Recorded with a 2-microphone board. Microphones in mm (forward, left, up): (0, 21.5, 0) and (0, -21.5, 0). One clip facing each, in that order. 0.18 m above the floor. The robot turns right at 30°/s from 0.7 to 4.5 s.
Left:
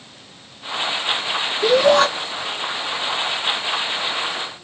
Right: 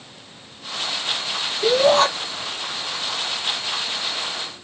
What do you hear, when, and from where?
1.6 s a shout: 20° left (ahead or behind), 2.5 m; by 2.1 s 35° left (ahead or behind), 2.5 m